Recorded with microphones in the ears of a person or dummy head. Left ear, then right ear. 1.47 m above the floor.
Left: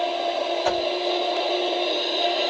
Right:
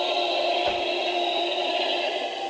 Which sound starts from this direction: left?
A whoosh, at 0.7 s.